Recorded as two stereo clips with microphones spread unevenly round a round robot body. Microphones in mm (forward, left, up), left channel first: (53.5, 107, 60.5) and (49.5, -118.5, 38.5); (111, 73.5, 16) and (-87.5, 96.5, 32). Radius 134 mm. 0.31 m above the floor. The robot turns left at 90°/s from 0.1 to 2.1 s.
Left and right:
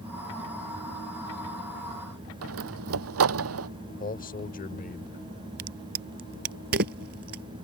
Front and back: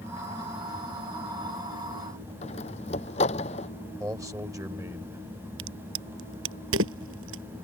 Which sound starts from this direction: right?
A door slam, at 2.4 s.